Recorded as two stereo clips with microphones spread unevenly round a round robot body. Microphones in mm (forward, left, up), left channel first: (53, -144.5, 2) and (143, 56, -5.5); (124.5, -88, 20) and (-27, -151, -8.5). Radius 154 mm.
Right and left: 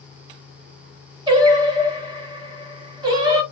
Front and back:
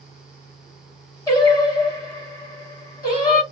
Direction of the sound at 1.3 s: 80° left.